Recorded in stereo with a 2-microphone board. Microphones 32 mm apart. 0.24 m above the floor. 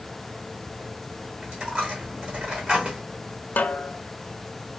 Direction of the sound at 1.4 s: 35° right (ahead or behind).